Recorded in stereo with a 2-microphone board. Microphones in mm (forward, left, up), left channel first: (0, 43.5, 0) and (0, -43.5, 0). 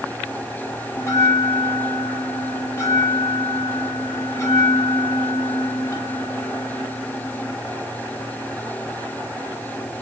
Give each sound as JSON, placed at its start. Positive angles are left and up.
{"t": 1.0, "sound": "a bell", "side_deg": 35, "distance_m": 1.1}